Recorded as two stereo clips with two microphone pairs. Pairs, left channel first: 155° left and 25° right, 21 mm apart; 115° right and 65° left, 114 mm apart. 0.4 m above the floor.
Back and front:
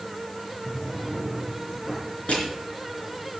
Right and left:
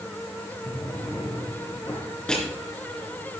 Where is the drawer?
175° right, 5 m.